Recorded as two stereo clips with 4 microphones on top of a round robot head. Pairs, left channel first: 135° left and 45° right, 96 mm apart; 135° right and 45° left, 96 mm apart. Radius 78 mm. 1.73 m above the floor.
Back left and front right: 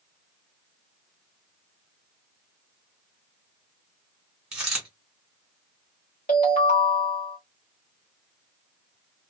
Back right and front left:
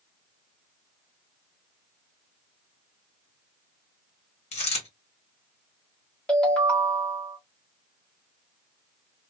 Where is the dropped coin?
125° right, 2.0 m.